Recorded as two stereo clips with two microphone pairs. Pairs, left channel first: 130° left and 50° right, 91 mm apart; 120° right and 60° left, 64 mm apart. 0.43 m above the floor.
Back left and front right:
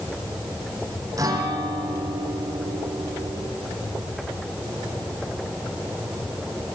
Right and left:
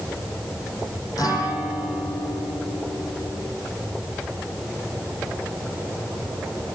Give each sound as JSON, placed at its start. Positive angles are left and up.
{"t": 1.2, "sound": "a guitar", "azimuth_deg": -95, "distance_m": 6.0}